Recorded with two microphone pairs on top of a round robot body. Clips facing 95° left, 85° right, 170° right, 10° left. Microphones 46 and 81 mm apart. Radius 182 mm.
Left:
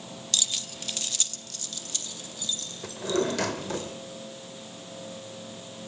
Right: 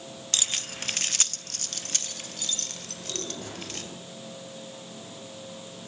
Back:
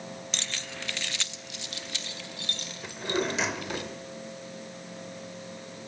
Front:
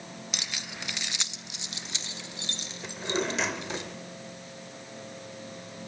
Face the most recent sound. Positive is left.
turn(degrees=100)